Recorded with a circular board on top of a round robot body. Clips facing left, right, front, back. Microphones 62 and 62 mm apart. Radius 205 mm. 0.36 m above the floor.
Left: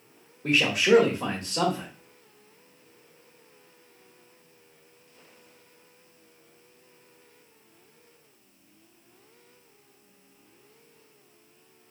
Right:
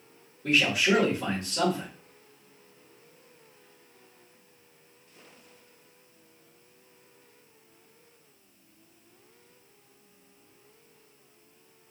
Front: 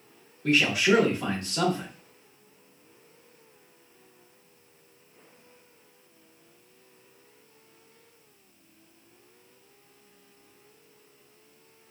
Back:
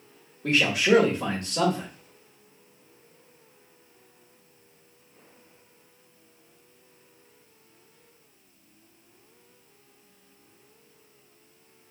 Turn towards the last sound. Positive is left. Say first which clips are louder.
# left 2 dB, back 1 dB
turn(degrees=135)